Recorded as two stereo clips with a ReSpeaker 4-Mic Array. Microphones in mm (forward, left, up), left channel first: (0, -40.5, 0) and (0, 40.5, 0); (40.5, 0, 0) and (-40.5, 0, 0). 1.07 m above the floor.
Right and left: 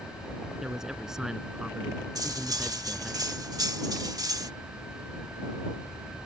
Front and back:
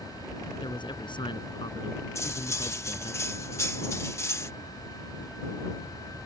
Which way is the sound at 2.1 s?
50° left.